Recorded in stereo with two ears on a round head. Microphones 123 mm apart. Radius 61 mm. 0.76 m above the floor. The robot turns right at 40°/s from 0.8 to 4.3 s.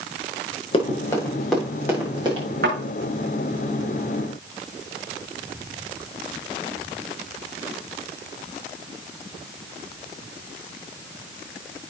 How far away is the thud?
About 7 m.